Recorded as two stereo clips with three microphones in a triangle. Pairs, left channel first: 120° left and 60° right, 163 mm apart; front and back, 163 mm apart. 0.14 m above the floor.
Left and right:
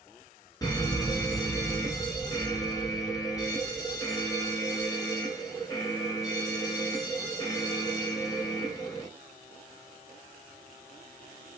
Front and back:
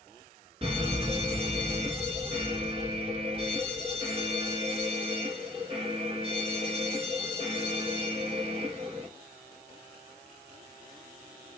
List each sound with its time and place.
0.6 s an alarm: 170° left, 1.3 m